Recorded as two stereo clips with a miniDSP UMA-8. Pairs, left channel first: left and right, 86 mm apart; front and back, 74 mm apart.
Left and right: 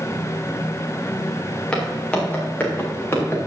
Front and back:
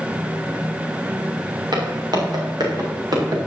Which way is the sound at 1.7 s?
170° left.